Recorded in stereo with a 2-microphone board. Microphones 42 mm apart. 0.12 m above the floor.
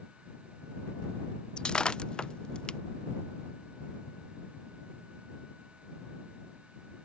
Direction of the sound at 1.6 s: 20° left (ahead or behind).